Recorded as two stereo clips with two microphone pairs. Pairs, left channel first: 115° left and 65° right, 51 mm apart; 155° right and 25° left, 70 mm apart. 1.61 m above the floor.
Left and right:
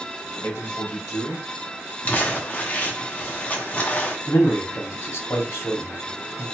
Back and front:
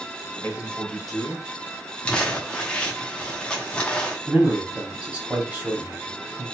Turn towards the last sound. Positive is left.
turn(degrees=95)